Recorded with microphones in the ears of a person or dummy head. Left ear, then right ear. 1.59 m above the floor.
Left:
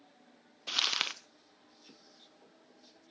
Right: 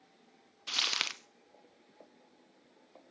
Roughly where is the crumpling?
Centre.